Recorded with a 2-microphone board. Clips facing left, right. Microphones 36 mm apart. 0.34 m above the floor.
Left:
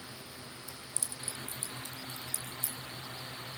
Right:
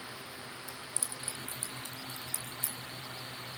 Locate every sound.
0.7 s keys jangling: 20° right (ahead or behind), 2.5 m; by 2.8 s 45° right (ahead or behind), 4.5 m